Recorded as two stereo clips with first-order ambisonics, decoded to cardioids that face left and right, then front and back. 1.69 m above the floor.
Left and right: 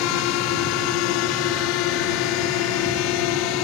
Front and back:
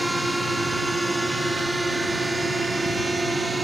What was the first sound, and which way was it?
A drone, 90° left.